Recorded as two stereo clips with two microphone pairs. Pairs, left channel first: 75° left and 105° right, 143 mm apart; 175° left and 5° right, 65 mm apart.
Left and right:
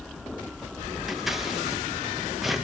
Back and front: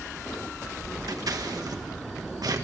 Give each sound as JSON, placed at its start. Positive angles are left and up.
{"t": 1.1, "sound": "scissors", "azimuth_deg": -20, "distance_m": 1.6}